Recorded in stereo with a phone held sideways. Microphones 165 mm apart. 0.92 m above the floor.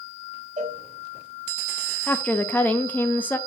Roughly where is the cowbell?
Right.